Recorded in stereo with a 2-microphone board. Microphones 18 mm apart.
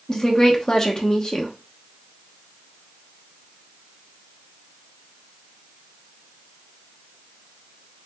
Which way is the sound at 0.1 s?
30° left (ahead or behind).